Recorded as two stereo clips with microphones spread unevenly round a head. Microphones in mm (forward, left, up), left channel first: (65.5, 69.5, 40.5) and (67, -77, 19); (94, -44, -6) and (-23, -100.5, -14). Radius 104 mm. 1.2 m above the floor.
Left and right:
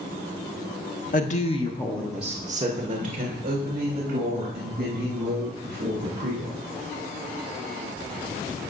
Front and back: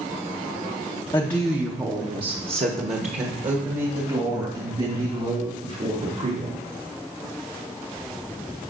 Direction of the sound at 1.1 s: 100° left.